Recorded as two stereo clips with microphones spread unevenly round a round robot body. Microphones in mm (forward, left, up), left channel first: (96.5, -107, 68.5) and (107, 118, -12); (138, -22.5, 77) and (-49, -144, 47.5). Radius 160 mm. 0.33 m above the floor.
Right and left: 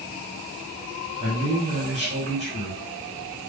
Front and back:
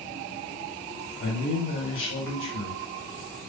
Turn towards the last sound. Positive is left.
turn(degrees=55)